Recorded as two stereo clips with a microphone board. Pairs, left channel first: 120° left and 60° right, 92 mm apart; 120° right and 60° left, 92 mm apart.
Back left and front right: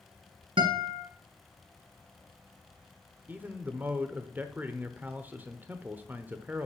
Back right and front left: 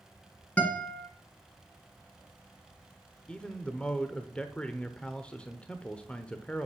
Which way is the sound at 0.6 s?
45° right.